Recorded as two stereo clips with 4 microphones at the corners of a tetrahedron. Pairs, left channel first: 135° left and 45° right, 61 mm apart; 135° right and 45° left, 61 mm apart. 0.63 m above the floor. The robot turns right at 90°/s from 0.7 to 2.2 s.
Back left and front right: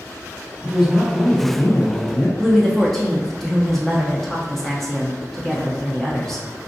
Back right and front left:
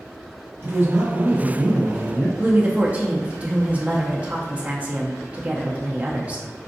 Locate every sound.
0.6 s a man speaking: 15° left, 0.9 m; by 2.3 s 150° left, 0.9 m
2.4 s a woman speaking: 60° left, 0.5 m